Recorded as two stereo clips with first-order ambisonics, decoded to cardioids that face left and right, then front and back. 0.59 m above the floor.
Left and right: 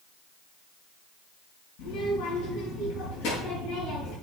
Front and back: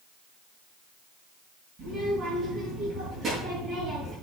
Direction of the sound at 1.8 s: 105° left.